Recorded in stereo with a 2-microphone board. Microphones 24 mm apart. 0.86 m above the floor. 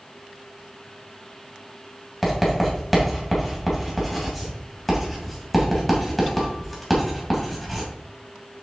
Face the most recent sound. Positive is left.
turn(degrees=5)  # may be behind; listen again after turning